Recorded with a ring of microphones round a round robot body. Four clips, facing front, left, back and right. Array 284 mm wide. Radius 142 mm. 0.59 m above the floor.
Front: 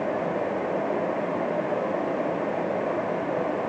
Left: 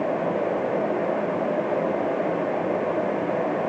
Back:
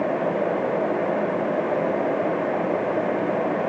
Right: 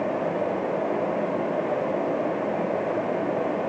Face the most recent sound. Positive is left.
No sound to turn to.